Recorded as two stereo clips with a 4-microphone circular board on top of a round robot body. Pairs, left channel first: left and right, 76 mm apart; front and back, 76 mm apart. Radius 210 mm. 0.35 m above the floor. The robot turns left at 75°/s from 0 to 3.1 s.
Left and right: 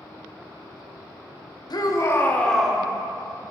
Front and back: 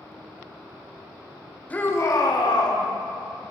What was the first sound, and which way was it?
A shout, 70° left.